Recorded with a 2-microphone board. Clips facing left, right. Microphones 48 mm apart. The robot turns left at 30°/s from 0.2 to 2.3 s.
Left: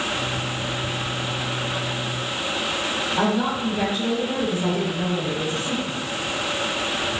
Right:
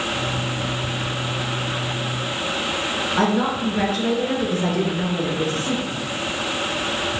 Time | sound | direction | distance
3.1 | a woman speaking | 70° right (ahead or behind) | 3.5 m